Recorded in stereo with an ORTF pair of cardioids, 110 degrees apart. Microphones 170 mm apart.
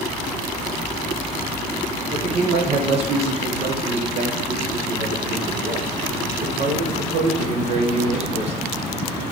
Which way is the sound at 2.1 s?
40° right.